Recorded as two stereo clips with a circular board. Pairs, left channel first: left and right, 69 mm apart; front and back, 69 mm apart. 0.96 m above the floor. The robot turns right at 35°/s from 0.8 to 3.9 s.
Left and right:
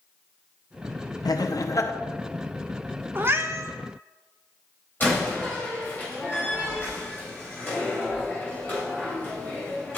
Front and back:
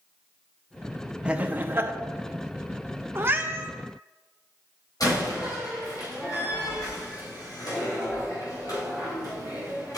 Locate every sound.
1.2 s laughter: 105° left, 0.7 m; by 1.9 s 130° left, 0.7 m
3.1 s a cat meowing: 140° right, 0.6 m; by 3.7 s 120° right, 0.6 m
5.0 s a door slam: 25° left, 3.5 m